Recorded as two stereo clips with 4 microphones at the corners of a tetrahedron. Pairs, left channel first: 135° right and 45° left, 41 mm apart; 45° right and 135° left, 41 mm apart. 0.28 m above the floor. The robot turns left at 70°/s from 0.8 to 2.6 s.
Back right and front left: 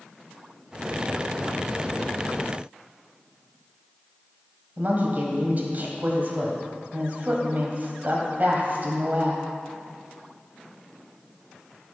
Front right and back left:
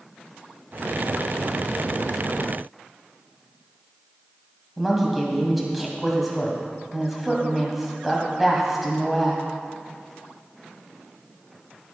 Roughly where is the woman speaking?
Ahead left.